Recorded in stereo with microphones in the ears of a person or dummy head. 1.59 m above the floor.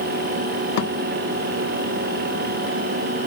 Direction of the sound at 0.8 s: 55° left (ahead or behind).